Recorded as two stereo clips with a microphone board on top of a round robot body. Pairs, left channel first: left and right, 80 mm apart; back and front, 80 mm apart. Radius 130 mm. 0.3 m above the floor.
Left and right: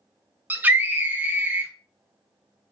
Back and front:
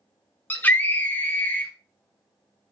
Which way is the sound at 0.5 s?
135° right.